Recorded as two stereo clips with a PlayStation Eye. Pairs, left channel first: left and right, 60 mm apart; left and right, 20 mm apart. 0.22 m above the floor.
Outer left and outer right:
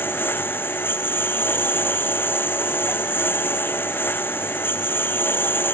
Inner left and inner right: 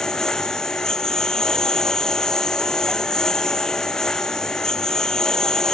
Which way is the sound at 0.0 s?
35° left (ahead or behind).